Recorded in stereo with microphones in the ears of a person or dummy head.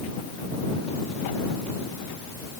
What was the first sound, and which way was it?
Only background noise.